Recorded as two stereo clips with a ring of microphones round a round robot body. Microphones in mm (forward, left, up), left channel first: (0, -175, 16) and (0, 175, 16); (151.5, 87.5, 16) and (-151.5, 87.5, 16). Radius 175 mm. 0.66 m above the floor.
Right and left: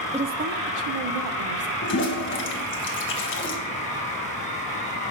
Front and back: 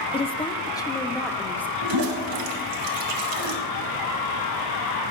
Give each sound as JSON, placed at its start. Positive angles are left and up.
{"t": 0.1, "sound": "a woman speaking", "azimuth_deg": 40, "distance_m": 0.7}
{"t": 1.8, "sound": "a toilet flushing", "azimuth_deg": -150, "distance_m": 2.0}